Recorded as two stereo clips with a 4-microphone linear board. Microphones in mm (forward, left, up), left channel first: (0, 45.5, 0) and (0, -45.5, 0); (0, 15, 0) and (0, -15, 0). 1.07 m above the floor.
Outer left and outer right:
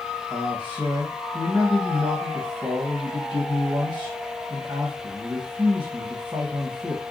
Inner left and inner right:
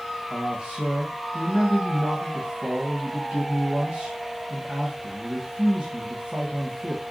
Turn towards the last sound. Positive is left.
turn(degrees=-35)  # may be behind; listen again after turning